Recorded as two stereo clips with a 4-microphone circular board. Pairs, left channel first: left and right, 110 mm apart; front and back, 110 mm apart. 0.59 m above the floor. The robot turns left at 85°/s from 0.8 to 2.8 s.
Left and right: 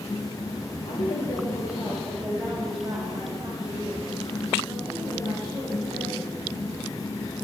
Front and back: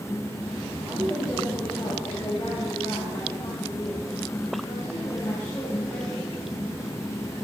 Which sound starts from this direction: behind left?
A woman speaking, at 0.8 s.